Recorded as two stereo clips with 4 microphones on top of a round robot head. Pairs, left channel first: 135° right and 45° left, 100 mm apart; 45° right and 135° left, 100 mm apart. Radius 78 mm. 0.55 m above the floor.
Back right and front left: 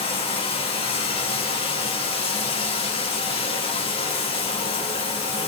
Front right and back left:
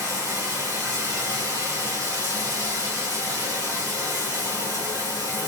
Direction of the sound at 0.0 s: 170° right.